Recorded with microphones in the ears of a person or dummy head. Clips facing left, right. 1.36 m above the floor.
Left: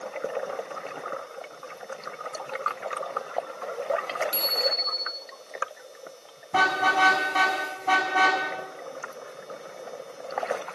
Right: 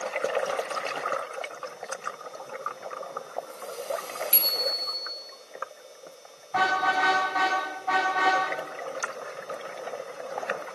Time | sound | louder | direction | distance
4.3 | a bicycle bell | left 4 dB | 30° right (ahead or behind) | 6 m
6.5 | a car horn | left 1 dB | 45° left (ahead or behind) | 7 m